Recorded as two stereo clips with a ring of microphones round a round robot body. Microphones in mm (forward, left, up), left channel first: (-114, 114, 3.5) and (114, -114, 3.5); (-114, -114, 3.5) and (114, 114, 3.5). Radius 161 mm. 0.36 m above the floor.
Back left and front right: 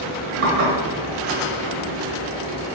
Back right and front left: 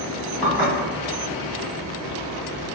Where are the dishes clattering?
40° right, 1.3 m.